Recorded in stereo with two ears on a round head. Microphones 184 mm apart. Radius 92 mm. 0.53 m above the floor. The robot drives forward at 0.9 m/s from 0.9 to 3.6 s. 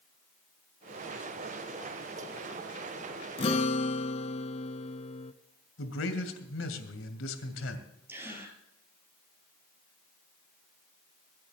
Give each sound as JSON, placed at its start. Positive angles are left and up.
{"t": 3.4, "sound": "a guitar", "side_deg": 30, "distance_m": 1.0}
{"t": 5.8, "sound": "a man speaking", "side_deg": 75, "distance_m": 2.5}
{"t": 8.1, "sound": "a gasp", "side_deg": -10, "distance_m": 2.5}